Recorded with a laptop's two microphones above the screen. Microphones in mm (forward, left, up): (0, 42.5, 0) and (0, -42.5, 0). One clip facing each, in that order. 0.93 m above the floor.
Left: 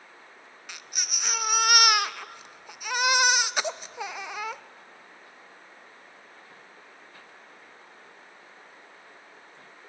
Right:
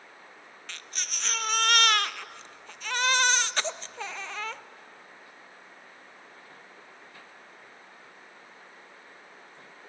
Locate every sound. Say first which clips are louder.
0.7 s a baby crying: left 1 dB; 10° left (ahead or behind), 0.7 m